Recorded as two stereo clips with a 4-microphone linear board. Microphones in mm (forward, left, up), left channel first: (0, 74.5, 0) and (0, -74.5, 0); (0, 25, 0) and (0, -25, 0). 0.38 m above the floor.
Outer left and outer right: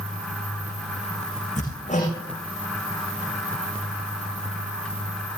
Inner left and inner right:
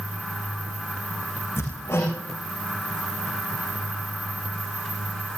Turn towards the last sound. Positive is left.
turn(degrees=55)  # may be behind; listen again after turning